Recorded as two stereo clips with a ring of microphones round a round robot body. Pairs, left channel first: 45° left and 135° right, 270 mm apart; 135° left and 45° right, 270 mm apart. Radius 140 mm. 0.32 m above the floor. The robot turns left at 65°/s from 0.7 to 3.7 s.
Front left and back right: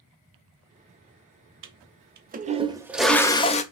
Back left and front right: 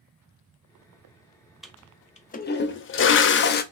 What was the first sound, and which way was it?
A toilet flushing, 135° right.